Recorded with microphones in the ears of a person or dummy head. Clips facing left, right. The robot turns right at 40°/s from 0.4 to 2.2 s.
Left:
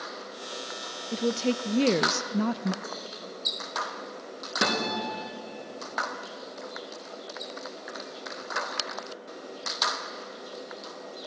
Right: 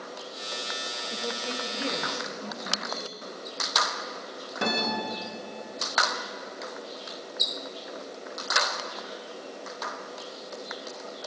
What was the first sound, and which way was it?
A woman speaking, 40° left.